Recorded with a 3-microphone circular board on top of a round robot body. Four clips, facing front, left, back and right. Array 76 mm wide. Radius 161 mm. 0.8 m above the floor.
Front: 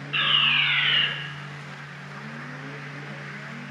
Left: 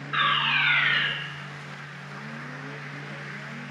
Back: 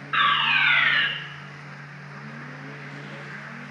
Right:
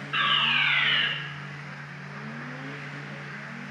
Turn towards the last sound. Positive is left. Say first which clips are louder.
# left 2 dB, back 5 dB
turn(degrees=165)